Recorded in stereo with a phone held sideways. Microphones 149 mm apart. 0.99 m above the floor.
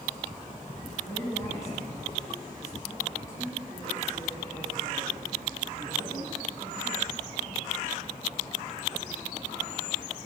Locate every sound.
1.0 s a woman speaking: 20° left (ahead or behind), 9.5 m